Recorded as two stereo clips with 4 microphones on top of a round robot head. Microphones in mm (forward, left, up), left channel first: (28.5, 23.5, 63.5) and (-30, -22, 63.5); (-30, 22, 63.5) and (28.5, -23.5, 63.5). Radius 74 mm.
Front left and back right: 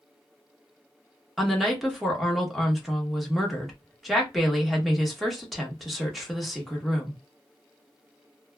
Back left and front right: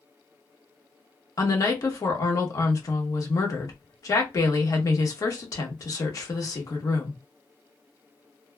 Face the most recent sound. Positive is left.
turn(degrees=125)